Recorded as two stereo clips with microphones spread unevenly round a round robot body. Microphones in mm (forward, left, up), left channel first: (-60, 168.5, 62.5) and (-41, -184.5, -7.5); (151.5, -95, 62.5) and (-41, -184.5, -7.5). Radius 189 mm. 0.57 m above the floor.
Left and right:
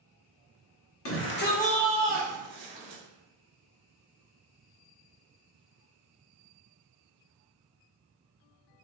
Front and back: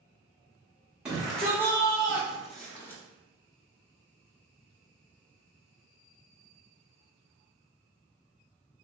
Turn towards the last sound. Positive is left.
turn(degrees=-45)